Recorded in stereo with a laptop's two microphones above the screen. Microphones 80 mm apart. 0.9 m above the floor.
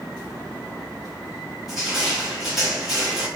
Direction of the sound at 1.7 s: 5° right (ahead or behind).